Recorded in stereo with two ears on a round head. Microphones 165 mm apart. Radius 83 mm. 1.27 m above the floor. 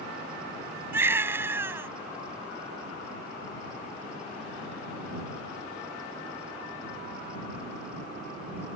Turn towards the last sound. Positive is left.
turn(degrees=-15)  # may be behind; listen again after turning